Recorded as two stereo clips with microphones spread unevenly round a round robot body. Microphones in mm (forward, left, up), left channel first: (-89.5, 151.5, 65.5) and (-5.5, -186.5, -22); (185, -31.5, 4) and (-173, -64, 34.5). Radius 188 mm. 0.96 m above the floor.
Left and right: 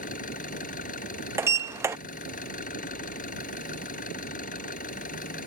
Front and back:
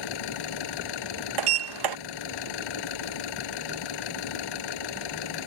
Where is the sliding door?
150° right.